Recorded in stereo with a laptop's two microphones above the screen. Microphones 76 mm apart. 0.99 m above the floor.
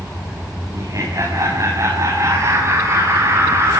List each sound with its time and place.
0.7 s laughter: 55° right (ahead or behind), 7.5 m; by 3.8 s 40° right (ahead or behind), 9.5 m